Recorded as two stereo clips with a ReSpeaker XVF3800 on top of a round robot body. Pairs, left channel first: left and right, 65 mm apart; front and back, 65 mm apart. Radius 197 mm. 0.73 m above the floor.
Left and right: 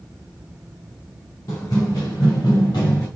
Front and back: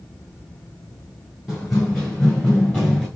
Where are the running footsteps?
95° left, 0.8 m.